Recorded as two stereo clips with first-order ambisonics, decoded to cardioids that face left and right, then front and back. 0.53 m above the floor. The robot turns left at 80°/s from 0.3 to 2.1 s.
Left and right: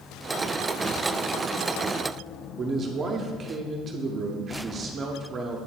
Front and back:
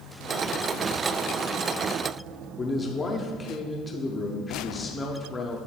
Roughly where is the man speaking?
Ahead right.